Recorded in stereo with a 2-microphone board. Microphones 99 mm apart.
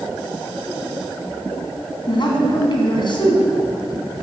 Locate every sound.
2.1 s a man speaking: 55° left (ahead or behind), 2.5 m